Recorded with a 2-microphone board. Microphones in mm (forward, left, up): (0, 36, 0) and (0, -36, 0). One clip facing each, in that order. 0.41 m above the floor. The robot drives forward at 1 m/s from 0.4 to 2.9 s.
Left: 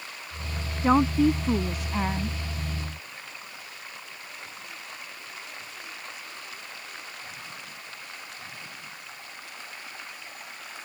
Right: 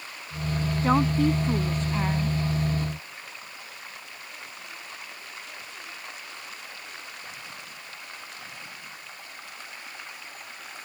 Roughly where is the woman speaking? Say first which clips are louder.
Left 2 dB; centre.